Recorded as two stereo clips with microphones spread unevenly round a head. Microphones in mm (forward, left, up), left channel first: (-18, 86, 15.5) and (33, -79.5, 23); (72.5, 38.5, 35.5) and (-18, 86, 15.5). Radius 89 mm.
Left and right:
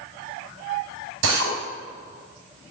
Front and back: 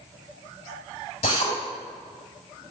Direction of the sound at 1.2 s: 75° right.